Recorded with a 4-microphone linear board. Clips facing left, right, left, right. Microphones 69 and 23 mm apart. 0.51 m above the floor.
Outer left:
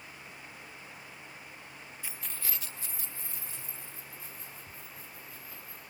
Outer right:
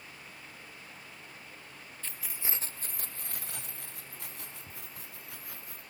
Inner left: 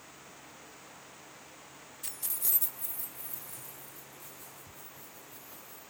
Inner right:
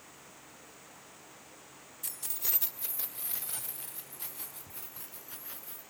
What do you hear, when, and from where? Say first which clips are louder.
2.0 s keys jangling: outer right 1 dB, inner left 1 dB; 15° left (ahead or behind), 1.0 m; by 5.8 s 85° right, 5 m